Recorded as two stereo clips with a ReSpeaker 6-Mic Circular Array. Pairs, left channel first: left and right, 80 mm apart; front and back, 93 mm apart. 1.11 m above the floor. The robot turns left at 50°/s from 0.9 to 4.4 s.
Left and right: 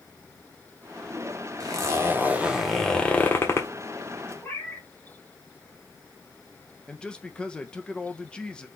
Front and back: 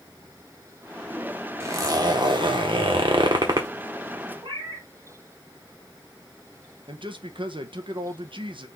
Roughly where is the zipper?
Behind right.